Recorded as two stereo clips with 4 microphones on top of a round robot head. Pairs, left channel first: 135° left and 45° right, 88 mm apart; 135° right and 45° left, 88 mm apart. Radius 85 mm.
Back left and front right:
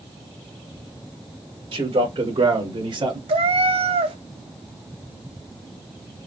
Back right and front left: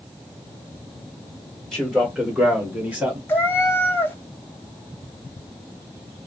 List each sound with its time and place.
1.7 s a man speaking: 50° right, 2 m; by 3.2 s 20° right, 1.6 m
3.3 s a cat meowing: 65° right, 0.7 m